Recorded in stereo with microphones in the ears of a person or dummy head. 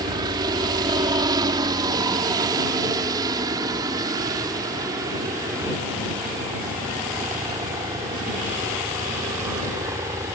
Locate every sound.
0.0 s a helicopter: 25° right (ahead or behind); by 10.4 s 20° right (ahead or behind)